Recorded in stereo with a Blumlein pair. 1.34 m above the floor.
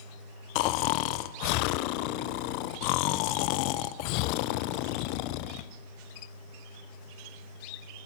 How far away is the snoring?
About 0.5 m.